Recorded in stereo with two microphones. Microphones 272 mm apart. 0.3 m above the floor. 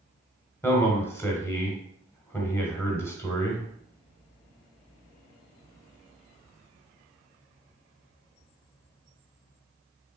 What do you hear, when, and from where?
0.6 s a man speaking: 10° left (ahead or behind), 1.3 m